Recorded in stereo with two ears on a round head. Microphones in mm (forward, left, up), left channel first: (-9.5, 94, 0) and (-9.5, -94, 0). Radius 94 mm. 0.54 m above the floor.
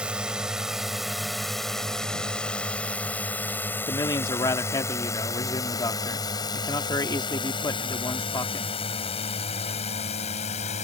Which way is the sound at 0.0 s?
5° right (ahead or behind).